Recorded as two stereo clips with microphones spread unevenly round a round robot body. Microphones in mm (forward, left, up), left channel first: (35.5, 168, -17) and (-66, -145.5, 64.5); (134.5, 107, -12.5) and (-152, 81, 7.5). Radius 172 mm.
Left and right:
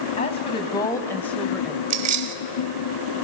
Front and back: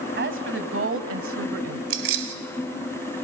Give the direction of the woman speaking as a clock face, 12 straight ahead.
7 o'clock.